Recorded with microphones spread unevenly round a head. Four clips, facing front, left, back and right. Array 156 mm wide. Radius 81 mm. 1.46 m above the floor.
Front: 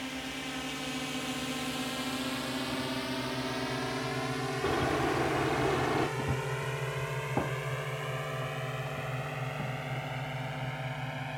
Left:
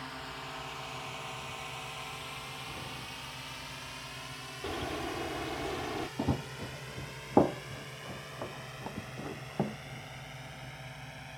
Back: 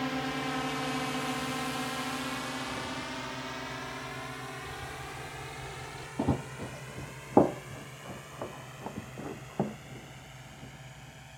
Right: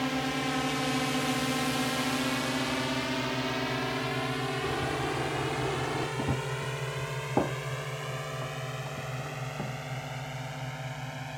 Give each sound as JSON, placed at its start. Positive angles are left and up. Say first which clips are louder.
{"t": 0.0, "sound": "a drone", "louder": "right 13 dB, back 6 dB", "azimuth_deg": -120}
{"t": 4.6, "sound": "a bird", "louder": "right 1 dB, front 13 dB", "azimuth_deg": -10}
{"t": 6.2, "sound": "running footsteps", "louder": "right 2 dB, back 2 dB", "azimuth_deg": 175}